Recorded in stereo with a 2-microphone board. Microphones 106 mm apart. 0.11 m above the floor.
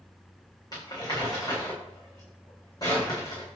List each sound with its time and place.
0.7 s crumpling: 35° left (ahead or behind), 3.5 m